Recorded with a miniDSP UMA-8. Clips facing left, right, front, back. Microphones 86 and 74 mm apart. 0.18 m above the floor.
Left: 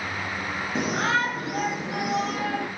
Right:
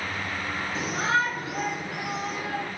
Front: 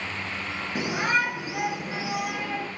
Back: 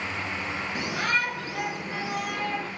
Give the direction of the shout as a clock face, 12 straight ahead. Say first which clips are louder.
Left 1 dB, front 3 dB; 10 o'clock.